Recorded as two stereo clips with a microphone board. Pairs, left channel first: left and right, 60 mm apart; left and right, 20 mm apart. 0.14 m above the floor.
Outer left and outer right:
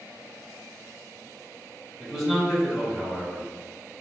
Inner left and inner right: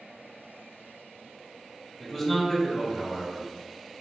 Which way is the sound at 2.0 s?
5° right (ahead or behind).